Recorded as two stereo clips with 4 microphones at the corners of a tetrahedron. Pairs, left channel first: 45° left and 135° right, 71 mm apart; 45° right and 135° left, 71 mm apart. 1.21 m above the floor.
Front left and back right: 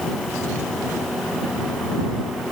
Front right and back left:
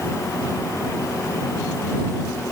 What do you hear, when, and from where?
Only background noise.